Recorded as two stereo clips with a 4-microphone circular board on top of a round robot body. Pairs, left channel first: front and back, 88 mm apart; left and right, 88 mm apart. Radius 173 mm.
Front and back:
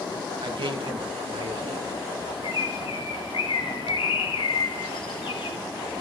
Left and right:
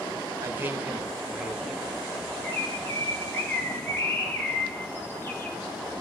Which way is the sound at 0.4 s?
150° right.